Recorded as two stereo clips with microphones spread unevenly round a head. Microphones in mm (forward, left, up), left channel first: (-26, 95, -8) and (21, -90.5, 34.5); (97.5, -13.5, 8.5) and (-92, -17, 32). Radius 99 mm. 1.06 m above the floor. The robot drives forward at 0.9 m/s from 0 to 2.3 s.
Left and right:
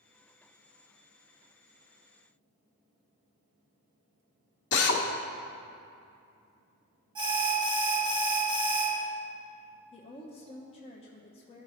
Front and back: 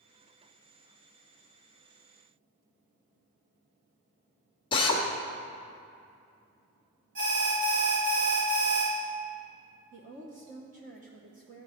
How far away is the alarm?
About 2 m.